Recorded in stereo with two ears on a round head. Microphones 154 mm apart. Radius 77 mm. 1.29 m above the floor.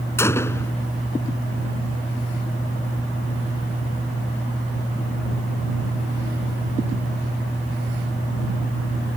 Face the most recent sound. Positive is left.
turn(degrees=15)  # may be behind; listen again after turning